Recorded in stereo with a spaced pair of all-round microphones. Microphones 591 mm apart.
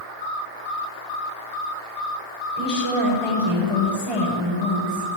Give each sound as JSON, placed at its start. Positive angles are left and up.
{"t": 2.6, "sound": "a woman speaking", "side_deg": -65, "distance_m": 5.5}